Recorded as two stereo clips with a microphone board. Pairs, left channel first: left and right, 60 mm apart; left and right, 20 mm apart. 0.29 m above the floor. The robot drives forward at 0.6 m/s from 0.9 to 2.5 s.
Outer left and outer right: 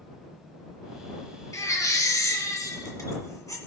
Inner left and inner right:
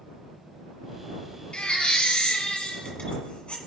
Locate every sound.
1.5 s a baby crying: 65° left (ahead or behind), 1.9 m